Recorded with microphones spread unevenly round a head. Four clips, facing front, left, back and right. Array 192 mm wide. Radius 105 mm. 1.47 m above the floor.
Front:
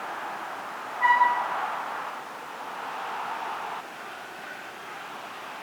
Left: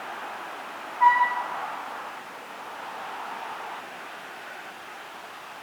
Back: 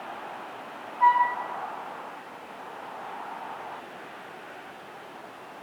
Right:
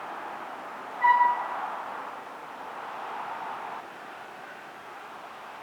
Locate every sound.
1.0 s a flute: 165° left, 4.5 m